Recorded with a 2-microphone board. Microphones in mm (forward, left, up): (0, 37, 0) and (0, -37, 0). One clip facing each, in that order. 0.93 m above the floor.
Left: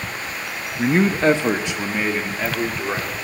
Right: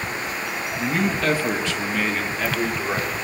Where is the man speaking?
40° left (ahead or behind), 1.2 m; by 3.1 s centre (ahead or behind), 2.5 m.